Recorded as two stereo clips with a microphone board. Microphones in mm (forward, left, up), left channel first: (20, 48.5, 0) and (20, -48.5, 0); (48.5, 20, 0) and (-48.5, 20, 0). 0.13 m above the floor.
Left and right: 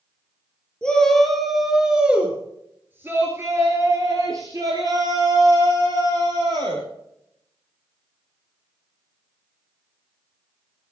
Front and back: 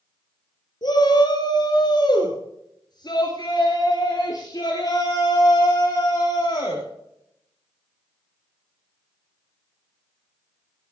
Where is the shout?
10° left, 2.5 m; by 6.8 s 55° right, 4.5 m.